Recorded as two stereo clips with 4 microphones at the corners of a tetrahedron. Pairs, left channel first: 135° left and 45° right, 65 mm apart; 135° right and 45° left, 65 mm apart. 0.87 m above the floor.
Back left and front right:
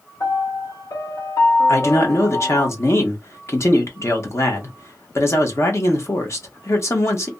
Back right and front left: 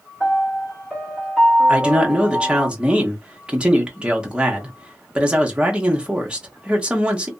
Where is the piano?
140° left, 1.7 m.